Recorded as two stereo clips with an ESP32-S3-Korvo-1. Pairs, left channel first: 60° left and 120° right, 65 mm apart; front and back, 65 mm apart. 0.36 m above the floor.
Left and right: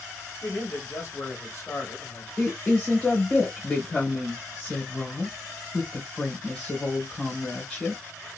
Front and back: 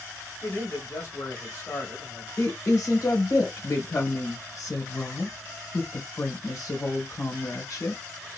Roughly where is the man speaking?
Ahead.